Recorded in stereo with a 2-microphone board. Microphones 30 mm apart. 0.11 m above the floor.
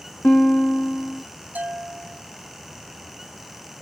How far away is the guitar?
About 1.9 m.